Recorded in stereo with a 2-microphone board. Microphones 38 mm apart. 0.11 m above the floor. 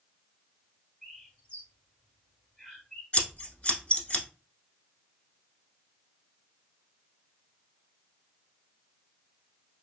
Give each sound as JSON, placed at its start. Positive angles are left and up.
{"t": 1.0, "sound": "a bird", "side_deg": 30, "distance_m": 2.5}
{"t": 3.1, "sound": "scissors", "side_deg": 35, "distance_m": 0.8}